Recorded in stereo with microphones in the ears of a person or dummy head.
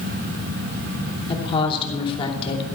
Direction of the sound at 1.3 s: 25° left (ahead or behind).